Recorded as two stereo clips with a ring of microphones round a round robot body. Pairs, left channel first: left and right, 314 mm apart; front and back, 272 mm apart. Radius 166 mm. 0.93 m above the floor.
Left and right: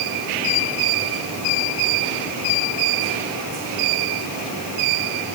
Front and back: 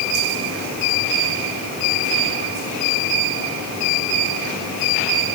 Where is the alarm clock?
I don't hear an alarm clock.